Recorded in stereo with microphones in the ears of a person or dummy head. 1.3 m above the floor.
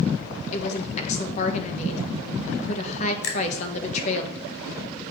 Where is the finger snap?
65° left (ahead or behind), 2.5 m.